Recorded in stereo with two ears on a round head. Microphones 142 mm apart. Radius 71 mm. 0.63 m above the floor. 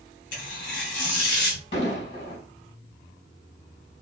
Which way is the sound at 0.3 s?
55° left (ahead or behind).